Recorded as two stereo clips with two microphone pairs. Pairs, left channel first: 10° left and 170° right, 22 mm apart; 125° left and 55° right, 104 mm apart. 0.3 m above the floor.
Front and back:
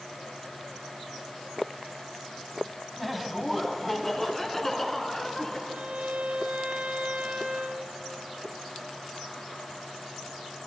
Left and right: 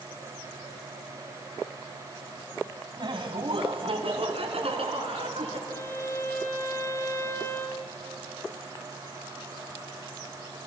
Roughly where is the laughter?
Right.